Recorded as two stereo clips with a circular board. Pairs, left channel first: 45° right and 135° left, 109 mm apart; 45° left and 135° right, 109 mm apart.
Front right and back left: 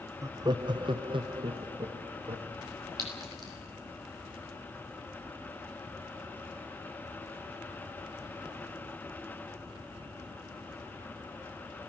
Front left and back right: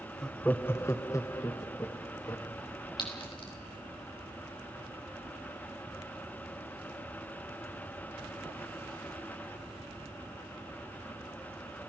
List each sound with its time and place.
0.2 s laughter: 125° left, 0.6 m; by 2.5 s 100° left, 2 m
3.0 s a clink: 80° left, 3.5 m